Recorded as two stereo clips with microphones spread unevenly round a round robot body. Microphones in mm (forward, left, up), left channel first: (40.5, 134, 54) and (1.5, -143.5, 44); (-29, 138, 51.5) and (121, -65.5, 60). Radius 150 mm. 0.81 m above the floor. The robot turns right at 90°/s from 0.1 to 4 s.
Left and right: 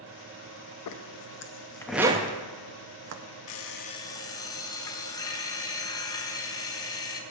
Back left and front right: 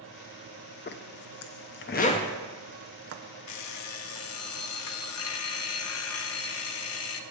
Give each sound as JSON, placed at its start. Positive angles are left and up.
{"t": 0.9, "sound": "a zipper", "azimuth_deg": 75, "distance_m": 0.7}
{"t": 3.5, "sound": "an alarm clock", "azimuth_deg": 115, "distance_m": 0.6}